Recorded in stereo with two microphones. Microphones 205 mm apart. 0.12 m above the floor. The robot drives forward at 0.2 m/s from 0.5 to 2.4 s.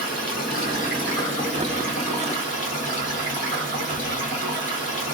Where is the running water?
45° left (ahead or behind), 1.7 m; by 5.2 s 40° left (ahead or behind), 1.9 m.